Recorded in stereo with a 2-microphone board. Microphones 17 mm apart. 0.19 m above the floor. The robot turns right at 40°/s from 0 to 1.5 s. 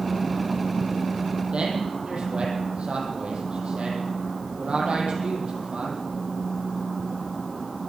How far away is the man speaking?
About 6 m.